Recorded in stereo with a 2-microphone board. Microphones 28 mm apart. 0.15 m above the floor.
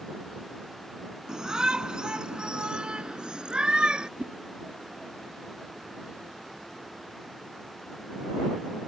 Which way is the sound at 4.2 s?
40° right (ahead or behind).